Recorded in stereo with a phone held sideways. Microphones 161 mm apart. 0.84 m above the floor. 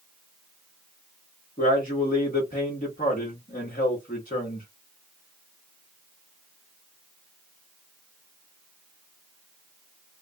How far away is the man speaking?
About 1.3 m.